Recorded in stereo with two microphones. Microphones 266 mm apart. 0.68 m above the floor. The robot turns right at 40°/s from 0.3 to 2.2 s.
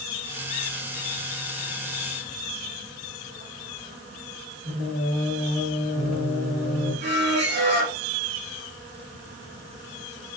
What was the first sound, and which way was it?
Singing, 65° right (ahead or behind).